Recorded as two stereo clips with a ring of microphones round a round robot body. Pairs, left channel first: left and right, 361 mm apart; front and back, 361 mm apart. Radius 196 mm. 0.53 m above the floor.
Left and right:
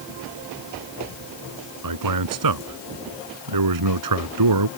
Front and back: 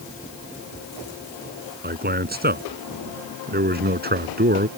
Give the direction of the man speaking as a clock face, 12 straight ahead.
4 o'clock.